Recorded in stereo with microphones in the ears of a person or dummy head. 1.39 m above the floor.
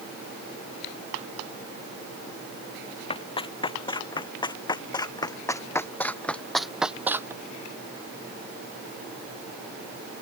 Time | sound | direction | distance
3.1 | running footsteps | 35° left (ahead or behind) | ?